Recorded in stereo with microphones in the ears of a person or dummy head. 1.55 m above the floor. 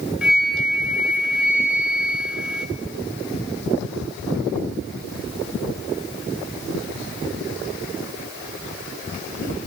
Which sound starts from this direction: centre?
A flute, at 0.2 s.